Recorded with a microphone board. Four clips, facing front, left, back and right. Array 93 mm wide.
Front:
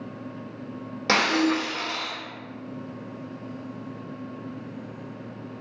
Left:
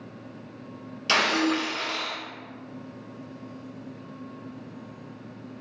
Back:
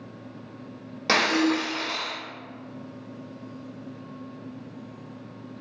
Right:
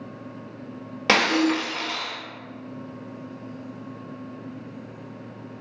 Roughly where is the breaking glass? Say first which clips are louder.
Right 3 dB, even; right.